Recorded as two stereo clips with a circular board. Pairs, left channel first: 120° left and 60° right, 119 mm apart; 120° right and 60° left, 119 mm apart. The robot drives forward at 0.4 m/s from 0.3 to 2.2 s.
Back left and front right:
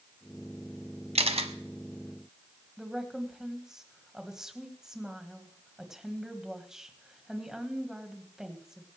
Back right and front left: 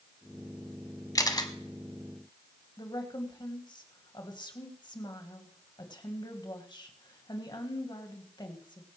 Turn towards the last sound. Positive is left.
turn(degrees=-145)